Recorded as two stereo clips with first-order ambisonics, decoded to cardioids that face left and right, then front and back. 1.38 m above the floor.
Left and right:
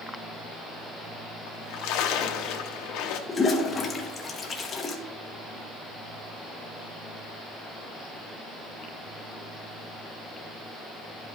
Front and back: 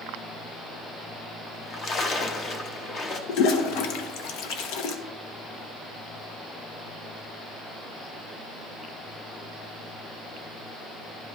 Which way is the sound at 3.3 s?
20° left.